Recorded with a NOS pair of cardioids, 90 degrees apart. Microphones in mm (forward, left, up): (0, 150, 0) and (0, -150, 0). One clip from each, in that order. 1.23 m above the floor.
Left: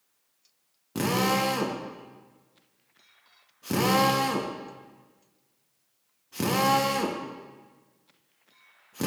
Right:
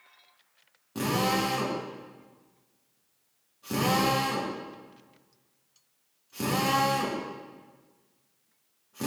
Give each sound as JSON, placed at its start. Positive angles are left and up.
{"t": 0.9, "sound": "a drill", "azimuth_deg": 35, "distance_m": 1.1}